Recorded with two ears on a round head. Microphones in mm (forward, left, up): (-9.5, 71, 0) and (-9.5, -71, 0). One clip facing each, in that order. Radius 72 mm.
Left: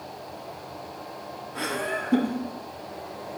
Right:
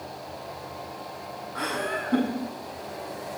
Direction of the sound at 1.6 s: 25° left (ahead or behind).